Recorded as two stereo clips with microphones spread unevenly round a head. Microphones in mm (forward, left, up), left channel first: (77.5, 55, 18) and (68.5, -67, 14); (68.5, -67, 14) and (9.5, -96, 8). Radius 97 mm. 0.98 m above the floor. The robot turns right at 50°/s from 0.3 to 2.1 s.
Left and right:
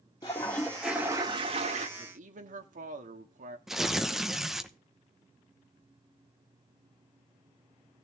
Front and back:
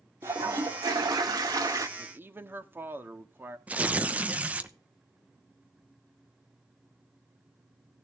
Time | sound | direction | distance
0.2 | a toilet flushing | 150° left | 1.3 m
2.0 | a man speaking | 105° right | 1.9 m
3.7 | tearing paper | 175° right | 0.9 m